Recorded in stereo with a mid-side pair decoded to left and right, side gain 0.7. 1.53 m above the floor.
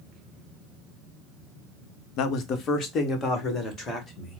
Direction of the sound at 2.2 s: 60° left.